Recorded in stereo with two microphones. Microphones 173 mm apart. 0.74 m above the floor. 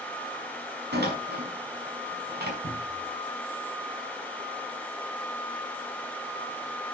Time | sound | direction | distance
0.9 | a door slam | 75° right (ahead or behind) | 5 m
2.6 | a cupboard door | 80° right | 8 m